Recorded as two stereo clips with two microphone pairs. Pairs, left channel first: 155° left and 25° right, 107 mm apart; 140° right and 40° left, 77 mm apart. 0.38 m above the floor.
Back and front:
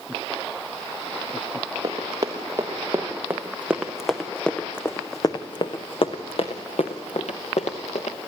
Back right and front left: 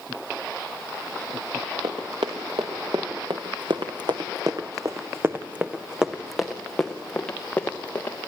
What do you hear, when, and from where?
1.8 s running footsteps: 30° left, 3 m; by 8.2 s 150° left, 3 m